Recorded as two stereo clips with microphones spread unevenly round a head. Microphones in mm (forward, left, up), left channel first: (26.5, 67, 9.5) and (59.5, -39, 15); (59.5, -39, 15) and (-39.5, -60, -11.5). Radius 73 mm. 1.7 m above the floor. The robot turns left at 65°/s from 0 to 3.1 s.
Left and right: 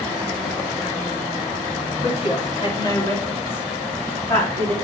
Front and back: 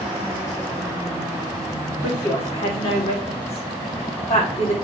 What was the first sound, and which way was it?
A woman speaking, 110° left.